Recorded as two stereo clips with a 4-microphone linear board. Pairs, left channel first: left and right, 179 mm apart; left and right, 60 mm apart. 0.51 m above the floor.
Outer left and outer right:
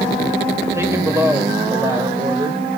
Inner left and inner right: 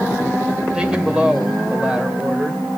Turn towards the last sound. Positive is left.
turn(degrees=-15)  # may be behind; listen again after turning